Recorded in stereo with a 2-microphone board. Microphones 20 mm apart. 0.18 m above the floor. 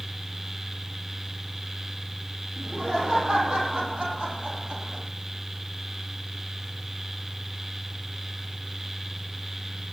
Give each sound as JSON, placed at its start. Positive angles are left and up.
{"t": 2.6, "sound": "laughter", "side_deg": -50, "distance_m": 8.5}